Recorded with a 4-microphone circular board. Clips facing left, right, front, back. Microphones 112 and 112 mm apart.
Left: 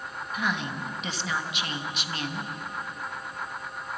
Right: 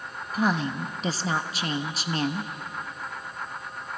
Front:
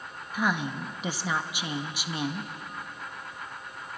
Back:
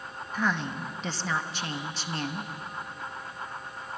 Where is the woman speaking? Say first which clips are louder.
Right 6 dB, front 1 dB; 70° right, 1.1 m.